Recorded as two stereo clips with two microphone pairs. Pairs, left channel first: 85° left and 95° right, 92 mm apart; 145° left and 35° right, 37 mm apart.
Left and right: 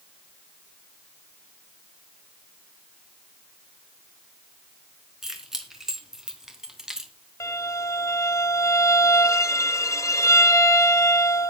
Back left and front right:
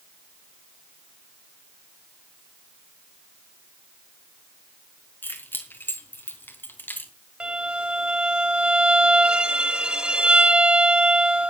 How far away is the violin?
About 1.0 m.